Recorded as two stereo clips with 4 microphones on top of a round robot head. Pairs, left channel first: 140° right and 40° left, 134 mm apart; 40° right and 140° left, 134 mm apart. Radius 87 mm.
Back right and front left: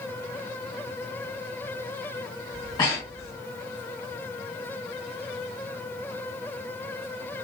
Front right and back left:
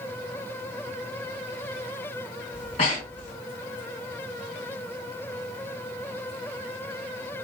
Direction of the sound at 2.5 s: 80° right.